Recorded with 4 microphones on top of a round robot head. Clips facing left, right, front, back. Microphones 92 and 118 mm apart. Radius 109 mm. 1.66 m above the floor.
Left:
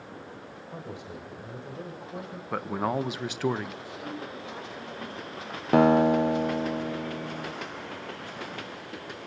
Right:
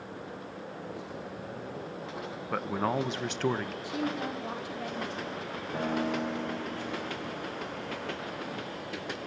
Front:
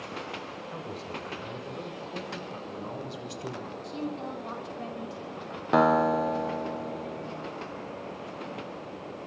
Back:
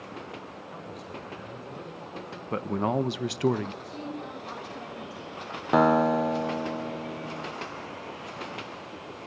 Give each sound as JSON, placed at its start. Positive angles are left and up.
{"t": 0.7, "sound": "a man speaking", "azimuth_deg": 55, "distance_m": 7.0}
{"t": 2.5, "sound": "a man speaking", "azimuth_deg": 170, "distance_m": 1.2}
{"t": 3.8, "sound": "a woman speaking", "azimuth_deg": -70, "distance_m": 6.0}
{"t": 5.7, "sound": "a guitar", "azimuth_deg": 90, "distance_m": 1.5}